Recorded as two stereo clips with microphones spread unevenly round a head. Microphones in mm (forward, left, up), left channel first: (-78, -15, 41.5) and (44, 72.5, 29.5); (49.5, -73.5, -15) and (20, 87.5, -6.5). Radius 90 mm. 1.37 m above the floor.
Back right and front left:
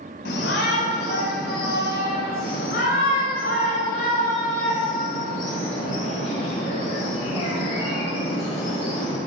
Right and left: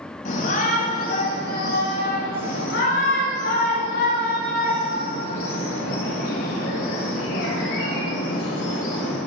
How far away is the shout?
About 5.5 m.